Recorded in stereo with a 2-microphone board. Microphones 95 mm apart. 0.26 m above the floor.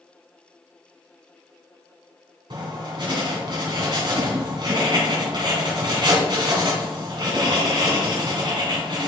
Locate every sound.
2.5 s writing: 55° right (ahead or behind), 2.5 m